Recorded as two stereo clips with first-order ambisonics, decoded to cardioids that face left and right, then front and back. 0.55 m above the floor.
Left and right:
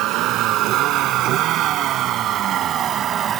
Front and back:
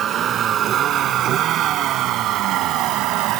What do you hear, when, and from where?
0.0 s a vehicle: 125° right; by 3.4 s 150° right